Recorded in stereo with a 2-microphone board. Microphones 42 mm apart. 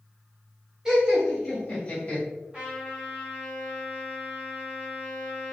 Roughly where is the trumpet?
Centre.